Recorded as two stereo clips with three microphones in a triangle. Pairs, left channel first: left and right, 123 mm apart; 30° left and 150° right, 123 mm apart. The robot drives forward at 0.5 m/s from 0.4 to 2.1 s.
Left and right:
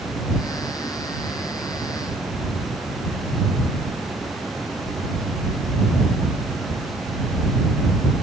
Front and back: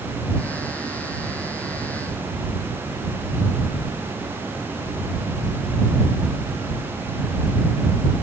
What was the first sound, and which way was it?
Only background noise.